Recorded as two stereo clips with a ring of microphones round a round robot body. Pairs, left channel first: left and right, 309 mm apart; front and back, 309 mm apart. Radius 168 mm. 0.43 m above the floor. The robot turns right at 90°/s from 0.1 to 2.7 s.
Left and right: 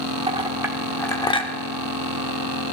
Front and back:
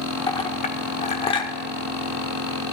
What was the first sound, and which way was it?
A clink, 55° right.